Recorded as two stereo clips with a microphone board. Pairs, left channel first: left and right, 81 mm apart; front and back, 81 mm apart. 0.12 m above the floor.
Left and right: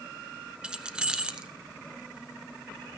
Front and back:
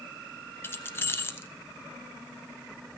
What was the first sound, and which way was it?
Keys jangling, 25° right.